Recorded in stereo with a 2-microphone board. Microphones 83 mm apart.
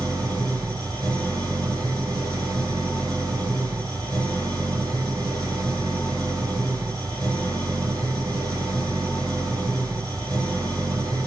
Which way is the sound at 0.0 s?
50° right (ahead or behind).